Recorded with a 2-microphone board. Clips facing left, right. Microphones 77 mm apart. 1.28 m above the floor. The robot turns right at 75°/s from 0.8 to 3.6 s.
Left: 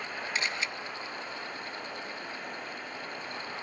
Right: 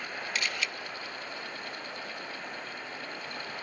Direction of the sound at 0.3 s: 25° left (ahead or behind).